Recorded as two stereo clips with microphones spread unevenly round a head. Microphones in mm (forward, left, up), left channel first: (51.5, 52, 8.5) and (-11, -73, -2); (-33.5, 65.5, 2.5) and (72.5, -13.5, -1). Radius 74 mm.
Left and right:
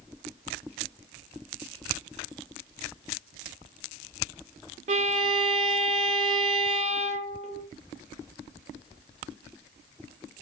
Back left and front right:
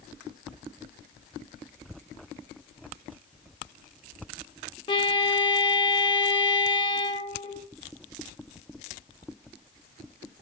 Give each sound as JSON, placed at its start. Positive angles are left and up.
{"t": 4.9, "sound": "a violin", "azimuth_deg": -165, "distance_m": 0.7}